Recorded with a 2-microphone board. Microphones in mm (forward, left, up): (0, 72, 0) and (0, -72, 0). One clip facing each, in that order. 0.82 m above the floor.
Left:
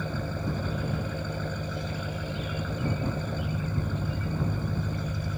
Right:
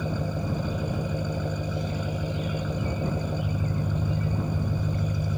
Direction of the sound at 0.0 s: 15° right (ahead or behind).